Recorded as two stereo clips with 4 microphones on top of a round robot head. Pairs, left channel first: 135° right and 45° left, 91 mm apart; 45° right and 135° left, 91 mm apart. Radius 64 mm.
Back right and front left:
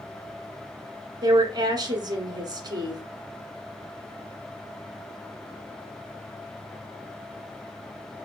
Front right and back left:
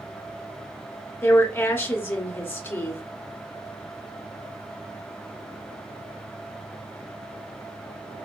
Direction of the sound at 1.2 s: 20° left.